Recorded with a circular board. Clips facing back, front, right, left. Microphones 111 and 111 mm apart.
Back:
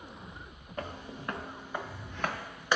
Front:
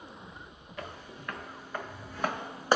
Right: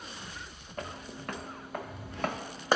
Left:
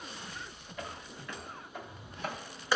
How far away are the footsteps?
About 1.0 m.